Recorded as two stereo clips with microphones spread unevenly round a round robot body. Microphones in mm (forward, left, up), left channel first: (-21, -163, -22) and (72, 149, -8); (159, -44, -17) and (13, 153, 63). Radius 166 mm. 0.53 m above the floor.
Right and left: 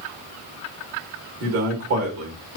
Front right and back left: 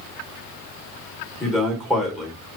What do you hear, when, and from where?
1.4 s a man speaking: 30° left, 1.4 m